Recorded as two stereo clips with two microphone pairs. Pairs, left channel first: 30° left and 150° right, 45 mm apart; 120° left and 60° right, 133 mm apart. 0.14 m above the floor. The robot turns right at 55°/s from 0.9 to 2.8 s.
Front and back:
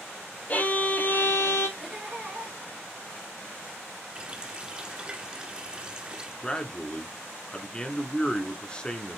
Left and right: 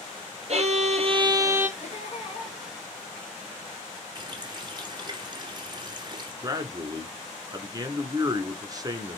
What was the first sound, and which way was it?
A violin, 25° right.